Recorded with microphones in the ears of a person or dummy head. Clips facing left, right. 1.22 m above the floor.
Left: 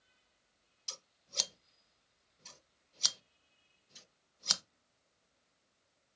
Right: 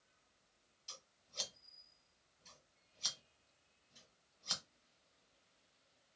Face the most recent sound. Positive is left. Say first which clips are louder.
# left 9 dB
turn(degrees=75)  # may be behind; listen again after turning